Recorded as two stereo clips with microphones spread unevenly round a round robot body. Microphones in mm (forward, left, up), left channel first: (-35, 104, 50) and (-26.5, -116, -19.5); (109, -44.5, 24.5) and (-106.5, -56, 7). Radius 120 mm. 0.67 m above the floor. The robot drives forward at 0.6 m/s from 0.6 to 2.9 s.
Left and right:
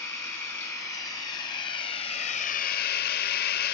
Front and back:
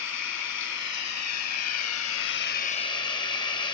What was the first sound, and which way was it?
Running water, 15° left.